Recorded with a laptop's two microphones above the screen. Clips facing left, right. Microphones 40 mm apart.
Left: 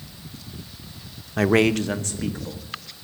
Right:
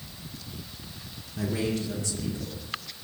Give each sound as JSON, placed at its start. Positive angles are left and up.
{"t": 1.4, "sound": "a man speaking", "side_deg": 70, "distance_m": 0.6}